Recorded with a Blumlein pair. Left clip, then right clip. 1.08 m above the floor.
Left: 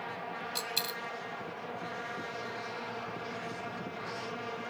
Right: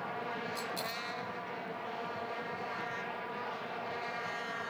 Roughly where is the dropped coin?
Ahead left.